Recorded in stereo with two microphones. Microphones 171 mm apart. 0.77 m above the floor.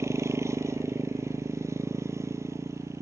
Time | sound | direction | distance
0.0 | a motorcycle | 15° right (ahead or behind) | ?